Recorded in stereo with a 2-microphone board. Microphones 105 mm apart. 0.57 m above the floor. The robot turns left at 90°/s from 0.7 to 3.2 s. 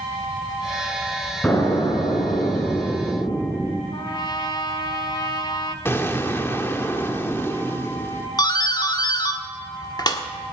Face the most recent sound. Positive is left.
turn(degrees=40)  # may be behind; listen again after turning